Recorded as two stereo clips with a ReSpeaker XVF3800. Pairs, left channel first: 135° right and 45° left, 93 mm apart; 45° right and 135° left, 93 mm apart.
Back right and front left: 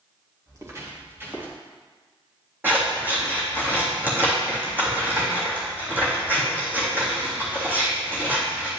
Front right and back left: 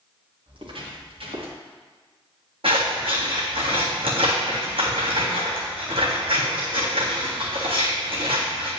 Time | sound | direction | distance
0.5 | footsteps | 100° left | 3 m
2.6 | scissors | 115° left | 3 m